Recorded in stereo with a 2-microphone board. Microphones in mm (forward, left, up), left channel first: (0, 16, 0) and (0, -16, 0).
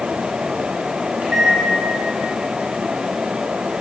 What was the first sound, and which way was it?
A microwave, 50° right (ahead or behind).